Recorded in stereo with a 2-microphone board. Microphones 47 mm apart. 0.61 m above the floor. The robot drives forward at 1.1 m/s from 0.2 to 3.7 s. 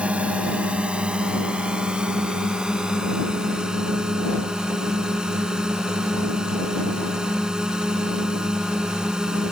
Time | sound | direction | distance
0.0 | a drone | 25° right (ahead or behind) | ?